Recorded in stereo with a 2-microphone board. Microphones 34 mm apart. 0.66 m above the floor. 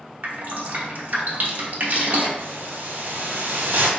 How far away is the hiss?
About 1.4 m.